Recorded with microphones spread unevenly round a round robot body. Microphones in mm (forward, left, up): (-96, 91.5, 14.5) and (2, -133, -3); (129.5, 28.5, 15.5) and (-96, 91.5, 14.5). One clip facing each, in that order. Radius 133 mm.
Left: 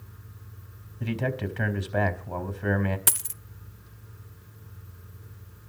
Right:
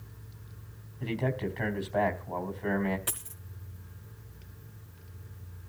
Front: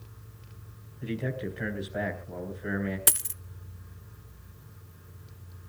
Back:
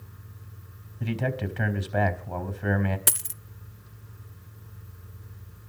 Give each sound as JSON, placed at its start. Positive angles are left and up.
{"t": 1.0, "sound": "a man speaking", "azimuth_deg": 155, "distance_m": 4.5}
{"t": 3.1, "sound": "a dropped coin", "azimuth_deg": 75, "distance_m": 0.7}